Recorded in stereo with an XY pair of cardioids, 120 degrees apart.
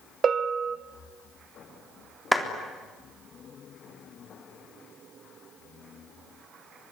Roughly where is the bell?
Ahead right.